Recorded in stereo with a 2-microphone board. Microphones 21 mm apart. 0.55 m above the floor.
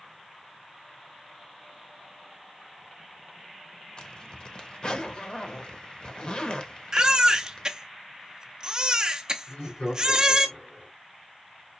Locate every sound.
4.0 s a zipper: 45° left (ahead or behind), 0.8 m
6.9 s a baby crying: 35° right (ahead or behind), 0.7 m
9.5 s laughter: 60° left (ahead or behind), 2.5 m